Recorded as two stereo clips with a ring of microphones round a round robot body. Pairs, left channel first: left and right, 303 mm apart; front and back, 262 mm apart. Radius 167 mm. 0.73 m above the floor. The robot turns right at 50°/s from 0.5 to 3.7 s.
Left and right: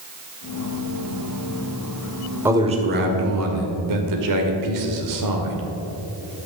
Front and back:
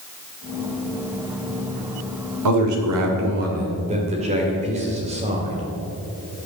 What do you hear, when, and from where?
2.5 s a man speaking: 175° right, 2.5 m; by 5.6 s 110° right, 2.5 m